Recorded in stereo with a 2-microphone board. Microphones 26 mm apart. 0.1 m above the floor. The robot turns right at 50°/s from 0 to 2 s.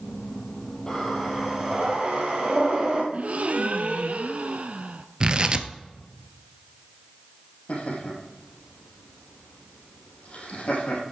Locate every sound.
0.9 s breathing: 160° left, 3 m; by 3.0 s 140° right, 3 m
3.1 s a gasp: 55° right (ahead or behind), 0.7 m
5.2 s tearing paper: 35° right (ahead or behind), 0.7 m
7.7 s laughter: 55° left (ahead or behind), 3.5 m